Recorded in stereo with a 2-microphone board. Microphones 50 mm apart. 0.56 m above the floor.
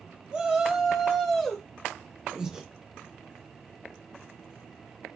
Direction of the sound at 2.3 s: 15° right (ahead or behind).